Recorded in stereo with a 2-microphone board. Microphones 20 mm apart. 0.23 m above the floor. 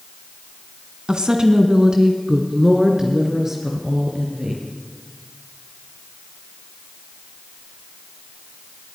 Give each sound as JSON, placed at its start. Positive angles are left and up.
{"t": 1.1, "sound": "a woman speaking", "side_deg": -45, "distance_m": 2.5}